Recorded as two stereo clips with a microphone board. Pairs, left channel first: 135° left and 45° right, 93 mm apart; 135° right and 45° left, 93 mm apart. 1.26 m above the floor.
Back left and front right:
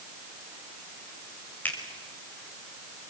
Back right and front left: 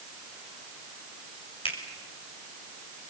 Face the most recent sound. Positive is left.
turn(degrees=-155)